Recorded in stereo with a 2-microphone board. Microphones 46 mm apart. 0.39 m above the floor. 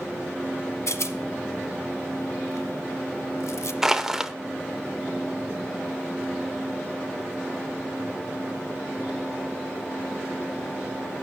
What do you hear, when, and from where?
0.9 s a rattle: 75° left (ahead or behind), 1.0 m
3.8 s crushing: 10° right (ahead or behind), 0.7 m